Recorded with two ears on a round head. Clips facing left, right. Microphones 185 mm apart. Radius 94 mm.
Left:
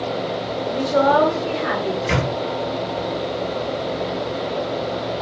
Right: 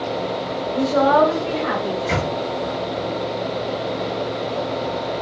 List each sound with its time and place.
0.7 s a woman speaking: 35° left (ahead or behind), 1.9 m; by 1.9 s 5° left (ahead or behind), 1.6 m
2.0 s a microwave: 50° left (ahead or behind), 2 m